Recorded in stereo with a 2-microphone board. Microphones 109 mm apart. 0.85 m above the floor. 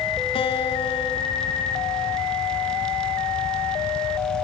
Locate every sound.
0.3 s a guitar: 60° left (ahead or behind), 2.5 m